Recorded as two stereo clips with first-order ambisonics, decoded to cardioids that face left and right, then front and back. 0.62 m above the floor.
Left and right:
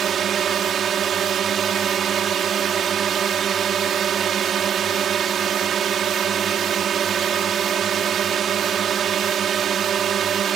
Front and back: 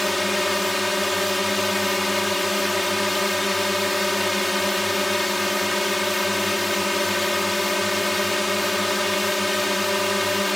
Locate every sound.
0.0 s a drone: 80° right